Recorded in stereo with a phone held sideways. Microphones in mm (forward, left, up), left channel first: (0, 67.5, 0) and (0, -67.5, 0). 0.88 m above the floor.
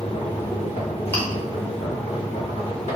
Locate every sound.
0.0 s a machine running: 50° left (ahead or behind), 0.9 m
1.1 s chewing: 15° left (ahead or behind), 0.8 m